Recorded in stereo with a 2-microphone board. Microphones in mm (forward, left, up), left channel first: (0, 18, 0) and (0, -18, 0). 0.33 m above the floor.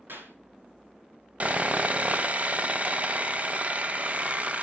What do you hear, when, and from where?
0.1 s a clap: 75° right (ahead or behind), 3 m
1.4 s sawing: 40° right (ahead or behind), 0.7 m